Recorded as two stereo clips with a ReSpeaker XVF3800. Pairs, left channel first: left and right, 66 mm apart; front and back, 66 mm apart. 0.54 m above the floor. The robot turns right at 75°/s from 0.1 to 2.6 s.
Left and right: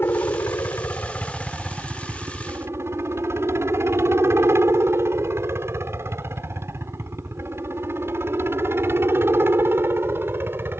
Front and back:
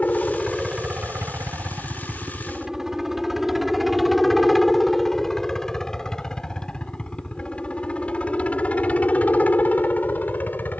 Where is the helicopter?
55° left; by 10.8 s 50° right.